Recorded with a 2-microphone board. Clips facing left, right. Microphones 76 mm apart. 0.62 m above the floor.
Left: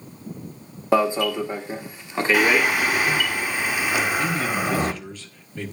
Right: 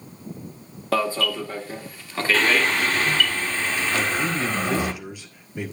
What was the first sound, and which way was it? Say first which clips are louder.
An alarm: left 4 dB; 15° left (ahead or behind).